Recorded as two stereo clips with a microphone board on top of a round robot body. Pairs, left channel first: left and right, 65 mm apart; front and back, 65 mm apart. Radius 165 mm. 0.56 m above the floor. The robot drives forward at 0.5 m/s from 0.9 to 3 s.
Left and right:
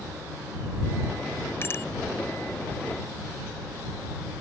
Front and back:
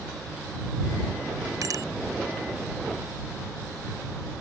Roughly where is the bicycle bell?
Behind left.